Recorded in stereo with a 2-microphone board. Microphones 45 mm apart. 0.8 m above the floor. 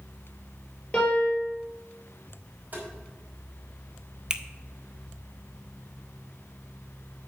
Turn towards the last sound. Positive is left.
turn(degrees=-20)  # may be behind; listen again after turning